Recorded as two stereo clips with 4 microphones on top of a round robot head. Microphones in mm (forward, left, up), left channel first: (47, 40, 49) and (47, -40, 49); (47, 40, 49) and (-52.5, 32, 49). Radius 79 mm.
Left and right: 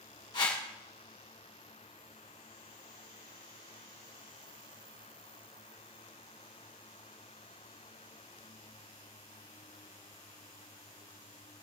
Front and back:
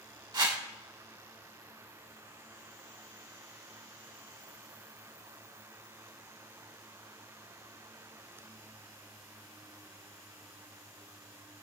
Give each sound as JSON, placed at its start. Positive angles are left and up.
{"t": 0.3, "sound": "a whoosh", "azimuth_deg": 135, "distance_m": 1.7}